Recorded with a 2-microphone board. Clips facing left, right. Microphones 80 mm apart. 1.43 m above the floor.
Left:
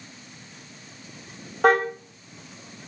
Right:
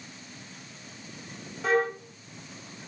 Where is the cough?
No cough in this recording.